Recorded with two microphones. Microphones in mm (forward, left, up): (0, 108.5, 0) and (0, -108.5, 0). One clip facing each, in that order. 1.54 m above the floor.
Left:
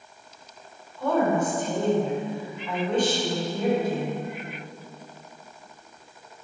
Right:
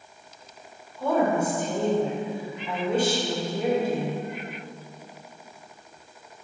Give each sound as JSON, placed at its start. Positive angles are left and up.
{"t": 1.0, "sound": "a woman speaking", "side_deg": -10, "distance_m": 3.0}